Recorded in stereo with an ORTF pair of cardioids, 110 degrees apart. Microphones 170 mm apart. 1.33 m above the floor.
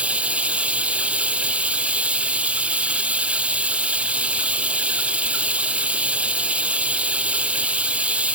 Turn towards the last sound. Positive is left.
turn(degrees=-5)